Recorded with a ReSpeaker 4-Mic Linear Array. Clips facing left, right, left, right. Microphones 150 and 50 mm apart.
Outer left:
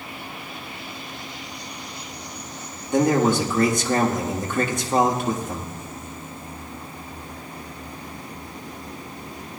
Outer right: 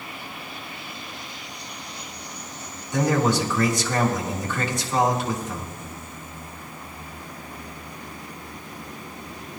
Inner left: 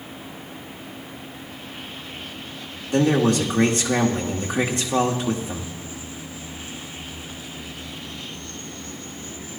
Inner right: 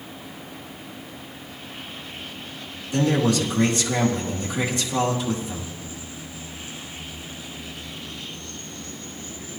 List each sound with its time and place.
2.9 s a man speaking: 55° left (ahead or behind), 1.8 m